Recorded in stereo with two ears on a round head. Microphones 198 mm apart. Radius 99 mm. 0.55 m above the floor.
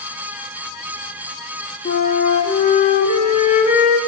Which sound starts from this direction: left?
A flute, at 1.9 s.